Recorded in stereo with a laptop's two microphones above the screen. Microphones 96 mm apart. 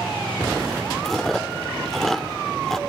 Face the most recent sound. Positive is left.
turn(degrees=5)  # may be behind; listen again after turning